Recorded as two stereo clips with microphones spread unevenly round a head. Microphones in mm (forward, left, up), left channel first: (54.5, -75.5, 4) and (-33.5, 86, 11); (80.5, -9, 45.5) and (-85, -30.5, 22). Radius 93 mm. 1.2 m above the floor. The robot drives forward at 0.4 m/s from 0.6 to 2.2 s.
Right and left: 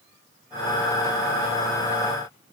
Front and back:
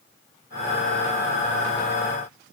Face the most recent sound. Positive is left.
No sound to turn to.